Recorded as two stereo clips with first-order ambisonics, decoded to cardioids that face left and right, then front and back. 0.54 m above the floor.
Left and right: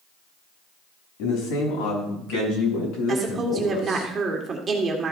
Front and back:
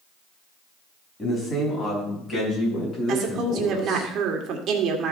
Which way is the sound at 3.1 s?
150° right.